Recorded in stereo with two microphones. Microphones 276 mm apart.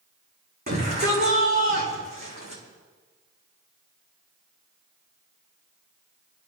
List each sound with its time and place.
0.7 s a shout: 35° right (ahead or behind), 9 m